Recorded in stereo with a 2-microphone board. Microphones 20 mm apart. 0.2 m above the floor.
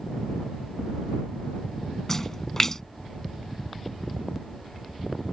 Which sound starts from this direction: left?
A splash, at 2.1 s.